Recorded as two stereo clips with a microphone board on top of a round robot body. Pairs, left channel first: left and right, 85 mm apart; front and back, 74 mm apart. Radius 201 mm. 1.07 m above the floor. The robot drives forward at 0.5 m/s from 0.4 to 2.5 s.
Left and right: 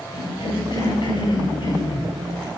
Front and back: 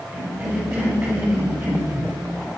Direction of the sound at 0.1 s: 120° left.